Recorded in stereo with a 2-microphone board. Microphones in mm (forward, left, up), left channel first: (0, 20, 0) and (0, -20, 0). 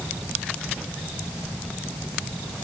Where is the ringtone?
No ringtone in this recording.